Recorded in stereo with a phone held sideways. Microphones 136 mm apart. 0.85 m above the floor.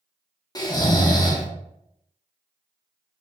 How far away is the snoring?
About 0.6 m.